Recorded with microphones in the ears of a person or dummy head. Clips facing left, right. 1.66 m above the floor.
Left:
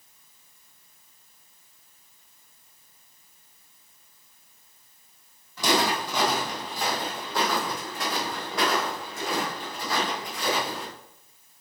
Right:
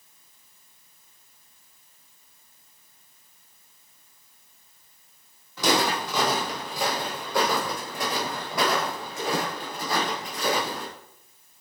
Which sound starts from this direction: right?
Footsteps, at 5.6 s.